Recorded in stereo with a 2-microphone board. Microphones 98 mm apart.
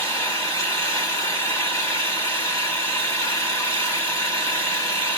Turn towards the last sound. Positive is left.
turn(degrees=30)  # may be behind; listen again after turning